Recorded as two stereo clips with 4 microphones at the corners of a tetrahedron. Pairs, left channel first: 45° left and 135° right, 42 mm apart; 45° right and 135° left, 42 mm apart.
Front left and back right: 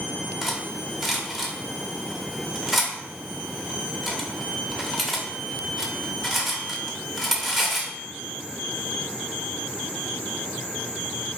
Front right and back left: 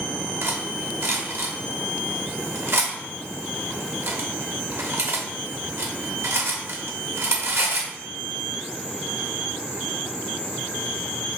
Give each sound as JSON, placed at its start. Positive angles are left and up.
{"t": 0.4, "sound": "cutlery clinking", "azimuth_deg": 140, "distance_m": 0.8}